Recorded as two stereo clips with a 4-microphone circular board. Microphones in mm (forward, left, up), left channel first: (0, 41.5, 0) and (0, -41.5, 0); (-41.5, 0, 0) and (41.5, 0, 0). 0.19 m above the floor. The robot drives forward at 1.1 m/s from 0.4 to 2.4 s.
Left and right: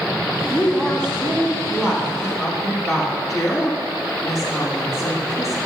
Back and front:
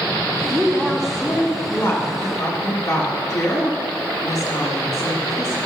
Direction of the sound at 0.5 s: 15° right.